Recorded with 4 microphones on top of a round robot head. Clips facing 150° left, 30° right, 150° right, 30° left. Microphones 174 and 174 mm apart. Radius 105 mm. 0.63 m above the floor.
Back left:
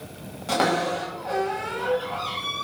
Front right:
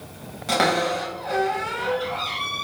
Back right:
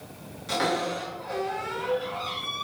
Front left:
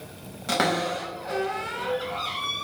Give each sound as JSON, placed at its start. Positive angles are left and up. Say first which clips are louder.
{"t": 0.5, "sound": "a cupboard door", "louder": "front right 1 dB, front left 2 dB", "azimuth_deg": 50, "distance_m": 4.5}